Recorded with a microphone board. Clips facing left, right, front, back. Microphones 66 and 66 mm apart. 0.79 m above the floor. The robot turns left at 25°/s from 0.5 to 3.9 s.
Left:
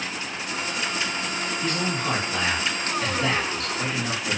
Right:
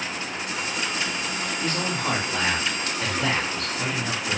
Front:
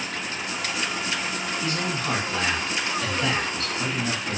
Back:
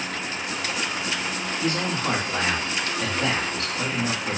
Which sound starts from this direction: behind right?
A man speaking, at 1.6 s.